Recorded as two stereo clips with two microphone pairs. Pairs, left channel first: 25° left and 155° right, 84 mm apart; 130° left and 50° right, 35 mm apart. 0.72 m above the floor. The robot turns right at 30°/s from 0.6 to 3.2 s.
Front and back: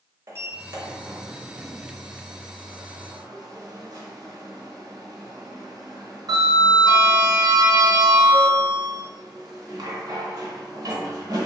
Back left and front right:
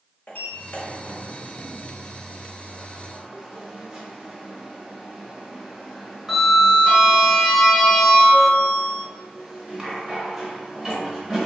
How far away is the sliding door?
About 0.9 m.